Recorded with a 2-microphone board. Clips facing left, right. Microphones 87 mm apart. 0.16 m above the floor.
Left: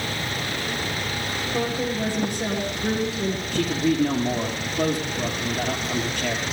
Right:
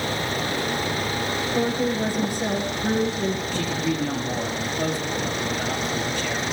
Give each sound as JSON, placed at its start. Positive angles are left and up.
{"t": 1.5, "sound": "a woman speaking", "side_deg": 15, "distance_m": 5.0}
{"t": 3.5, "sound": "a man speaking", "side_deg": 65, "distance_m": 4.0}